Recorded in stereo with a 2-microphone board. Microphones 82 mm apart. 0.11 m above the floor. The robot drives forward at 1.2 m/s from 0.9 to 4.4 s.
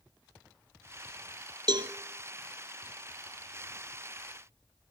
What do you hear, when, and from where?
1.7 s a cowbell: 70° right (ahead or behind), 0.9 m; by 1.9 s 65° right (ahead or behind), 0.9 m